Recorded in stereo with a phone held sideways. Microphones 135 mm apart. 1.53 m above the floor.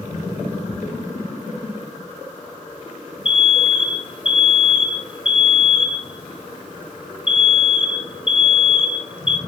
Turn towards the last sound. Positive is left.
turn(degrees=40)  # may be behind; listen again after turning